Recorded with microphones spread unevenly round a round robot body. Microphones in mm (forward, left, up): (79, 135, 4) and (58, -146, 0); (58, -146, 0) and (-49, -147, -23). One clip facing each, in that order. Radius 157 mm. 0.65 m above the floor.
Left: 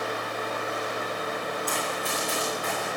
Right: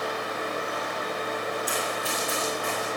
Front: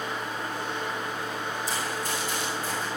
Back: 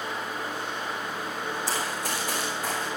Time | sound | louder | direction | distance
1.7 | running footsteps | even, even | 175° right | 3 m